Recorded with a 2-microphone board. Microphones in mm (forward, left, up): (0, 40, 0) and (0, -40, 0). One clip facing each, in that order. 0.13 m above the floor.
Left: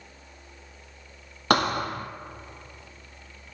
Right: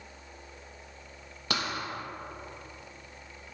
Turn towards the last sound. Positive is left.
turn(degrees=60)  # may be behind; listen again after turning